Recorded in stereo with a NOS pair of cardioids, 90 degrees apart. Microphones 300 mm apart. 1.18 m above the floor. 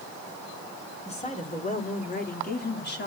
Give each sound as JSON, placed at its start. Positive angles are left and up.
{"t": 1.1, "sound": "a woman speaking", "azimuth_deg": 20, "distance_m": 4.0}